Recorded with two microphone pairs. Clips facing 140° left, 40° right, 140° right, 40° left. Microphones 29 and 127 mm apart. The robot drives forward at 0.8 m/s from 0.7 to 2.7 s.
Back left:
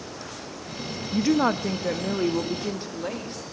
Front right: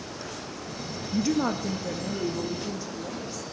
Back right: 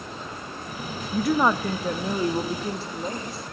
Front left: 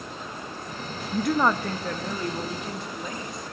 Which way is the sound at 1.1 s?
115° left.